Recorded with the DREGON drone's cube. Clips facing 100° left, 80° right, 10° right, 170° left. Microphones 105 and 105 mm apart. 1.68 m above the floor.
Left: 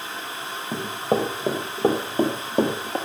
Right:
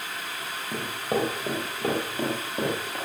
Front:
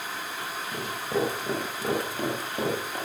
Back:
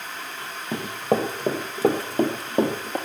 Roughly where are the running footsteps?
Behind.